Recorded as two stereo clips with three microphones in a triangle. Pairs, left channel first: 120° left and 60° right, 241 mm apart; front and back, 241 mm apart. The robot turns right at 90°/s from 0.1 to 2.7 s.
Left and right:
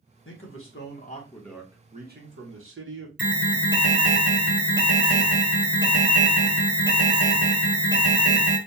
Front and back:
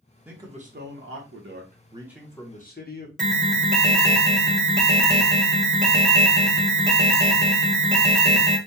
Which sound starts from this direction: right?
An alarm, at 3.2 s.